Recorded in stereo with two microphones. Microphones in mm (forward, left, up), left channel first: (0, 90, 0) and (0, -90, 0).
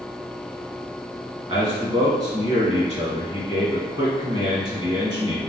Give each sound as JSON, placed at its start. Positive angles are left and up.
{"t": 1.5, "sound": "a man speaking", "side_deg": -25, "distance_m": 1.5}